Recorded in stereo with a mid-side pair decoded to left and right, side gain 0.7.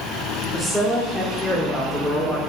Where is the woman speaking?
5° right, 3 m; by 2.4 s 10° right, 5 m.